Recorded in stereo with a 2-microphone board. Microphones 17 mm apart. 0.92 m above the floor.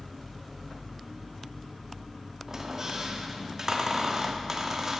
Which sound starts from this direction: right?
A squeak, at 2.5 s.